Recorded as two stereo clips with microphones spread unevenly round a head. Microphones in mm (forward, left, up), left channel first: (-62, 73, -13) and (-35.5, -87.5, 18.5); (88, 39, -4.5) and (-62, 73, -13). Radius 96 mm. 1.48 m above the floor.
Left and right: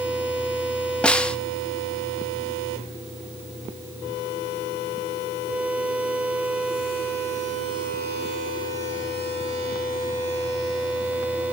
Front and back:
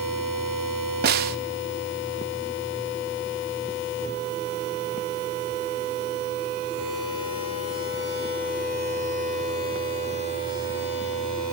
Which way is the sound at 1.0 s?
170° right.